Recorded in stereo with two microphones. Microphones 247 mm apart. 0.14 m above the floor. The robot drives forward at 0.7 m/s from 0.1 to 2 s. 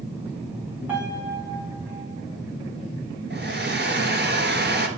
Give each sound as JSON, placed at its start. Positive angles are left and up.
{"t": 0.9, "sound": "a piano", "side_deg": -5, "distance_m": 4.0}
{"t": 3.3, "sound": "a hair dryer", "side_deg": -45, "distance_m": 1.3}